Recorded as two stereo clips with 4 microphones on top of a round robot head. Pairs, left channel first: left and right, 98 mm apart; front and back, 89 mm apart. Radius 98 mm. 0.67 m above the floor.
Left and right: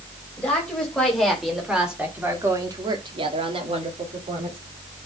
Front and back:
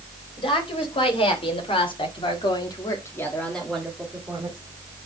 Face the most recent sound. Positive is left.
turn(degrees=-115)